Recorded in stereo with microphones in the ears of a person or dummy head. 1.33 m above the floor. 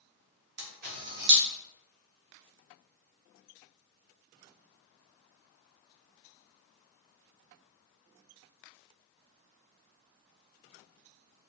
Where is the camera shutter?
55° right (ahead or behind), 0.9 m.